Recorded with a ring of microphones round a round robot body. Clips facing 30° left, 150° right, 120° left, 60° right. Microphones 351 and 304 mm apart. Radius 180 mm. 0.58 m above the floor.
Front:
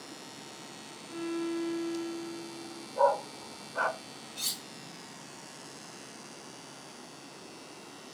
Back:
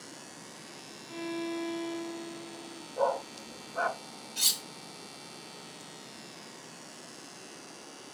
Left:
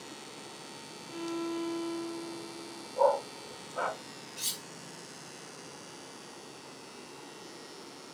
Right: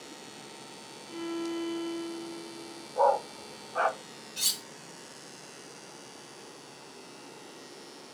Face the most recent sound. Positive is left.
turn(degrees=-100)